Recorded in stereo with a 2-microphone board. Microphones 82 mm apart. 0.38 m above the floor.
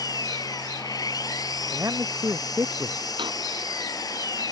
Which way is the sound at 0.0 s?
50° left (ahead or behind).